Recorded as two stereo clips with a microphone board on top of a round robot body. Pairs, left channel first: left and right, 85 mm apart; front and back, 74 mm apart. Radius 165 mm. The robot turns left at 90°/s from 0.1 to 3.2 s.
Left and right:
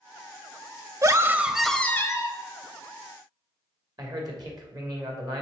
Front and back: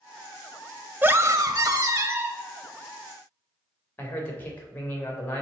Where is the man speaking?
60° right, 2.5 m.